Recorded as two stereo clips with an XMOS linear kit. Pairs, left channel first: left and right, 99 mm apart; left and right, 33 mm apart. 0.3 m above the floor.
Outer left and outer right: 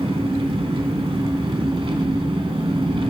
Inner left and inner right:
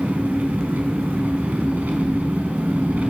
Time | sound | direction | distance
0.0 | an engine running | 65° right (ahead or behind) | 0.9 m